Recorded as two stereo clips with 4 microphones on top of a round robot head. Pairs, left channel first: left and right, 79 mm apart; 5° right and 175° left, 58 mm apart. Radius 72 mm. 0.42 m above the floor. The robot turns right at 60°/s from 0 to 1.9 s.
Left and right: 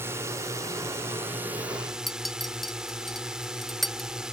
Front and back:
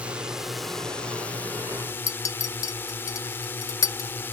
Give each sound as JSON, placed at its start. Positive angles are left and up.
{"t": 0.0, "sound": "a drone", "azimuth_deg": -125}
{"t": 2.1, "sound": "a clink", "azimuth_deg": 0}